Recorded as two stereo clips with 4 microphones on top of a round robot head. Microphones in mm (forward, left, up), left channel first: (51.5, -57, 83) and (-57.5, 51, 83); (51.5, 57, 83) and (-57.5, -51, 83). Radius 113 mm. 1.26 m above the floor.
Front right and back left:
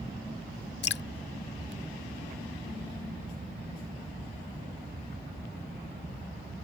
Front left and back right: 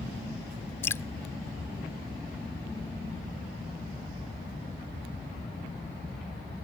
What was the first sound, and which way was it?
Dripping, 30° right.